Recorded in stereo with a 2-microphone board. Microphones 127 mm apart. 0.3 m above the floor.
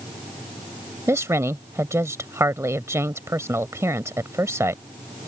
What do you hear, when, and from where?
1.1 s a woman speaking: 20° right (ahead or behind)